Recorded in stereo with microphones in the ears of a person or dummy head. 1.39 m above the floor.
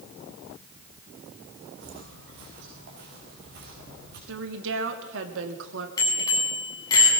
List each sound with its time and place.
1.8 s footsteps: 60° right (ahead or behind), 6.5 m; by 4.2 s 55° right (ahead or behind), 8 m
4.3 s a woman speaking: 75° right (ahead or behind), 2 m
6.0 s a bicycle bell: 25° left (ahead or behind), 7.5 m